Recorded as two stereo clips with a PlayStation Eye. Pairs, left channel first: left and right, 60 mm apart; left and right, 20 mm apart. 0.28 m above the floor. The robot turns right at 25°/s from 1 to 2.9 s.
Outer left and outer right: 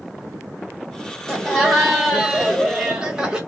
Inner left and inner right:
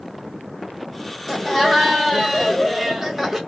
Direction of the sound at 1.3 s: 165° left.